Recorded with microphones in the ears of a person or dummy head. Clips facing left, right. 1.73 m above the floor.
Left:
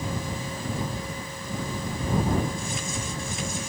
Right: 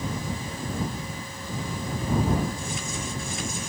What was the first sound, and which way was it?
Only background noise.